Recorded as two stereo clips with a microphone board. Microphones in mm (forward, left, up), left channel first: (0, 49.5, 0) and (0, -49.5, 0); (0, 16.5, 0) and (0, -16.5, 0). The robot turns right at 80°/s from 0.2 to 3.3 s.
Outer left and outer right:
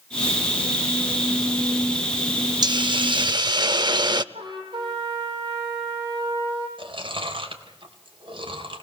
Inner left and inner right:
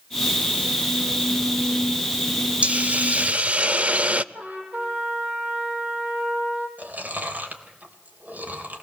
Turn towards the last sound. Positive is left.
turn(degrees=-60)  # may be behind; listen again after turning